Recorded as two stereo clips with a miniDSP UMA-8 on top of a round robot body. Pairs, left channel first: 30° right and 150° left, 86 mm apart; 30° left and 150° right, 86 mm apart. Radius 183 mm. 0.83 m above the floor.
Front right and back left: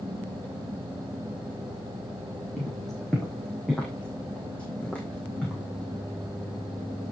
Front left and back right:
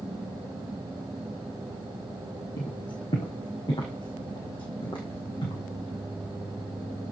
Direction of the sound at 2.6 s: 55° left.